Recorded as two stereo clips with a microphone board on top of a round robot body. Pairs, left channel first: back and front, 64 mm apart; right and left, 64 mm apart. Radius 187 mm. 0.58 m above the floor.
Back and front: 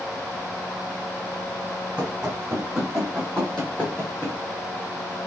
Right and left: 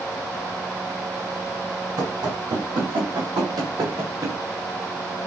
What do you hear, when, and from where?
2.0 s running footsteps: 70° left, 1.7 m; by 4.4 s 130° left, 0.9 m